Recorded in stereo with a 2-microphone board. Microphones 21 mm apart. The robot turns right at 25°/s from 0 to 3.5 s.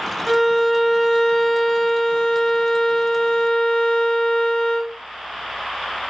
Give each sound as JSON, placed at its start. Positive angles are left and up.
{"t": 0.3, "sound": "a violin", "azimuth_deg": 0, "distance_m": 0.9}